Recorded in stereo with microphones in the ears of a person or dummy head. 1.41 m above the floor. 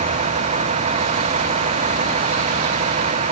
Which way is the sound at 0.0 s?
35° right (ahead or behind).